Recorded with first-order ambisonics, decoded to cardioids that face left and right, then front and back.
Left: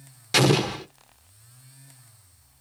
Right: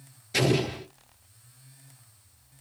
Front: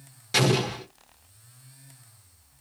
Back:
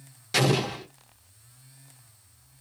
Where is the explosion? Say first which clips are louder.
Left 5 dB, front 1 dB; 85° left, 0.9 m.